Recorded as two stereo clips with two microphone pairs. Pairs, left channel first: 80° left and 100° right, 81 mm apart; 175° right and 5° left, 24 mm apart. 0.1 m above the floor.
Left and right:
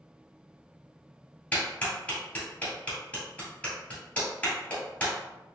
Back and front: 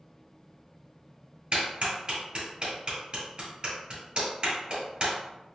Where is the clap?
15° left, 2.0 m.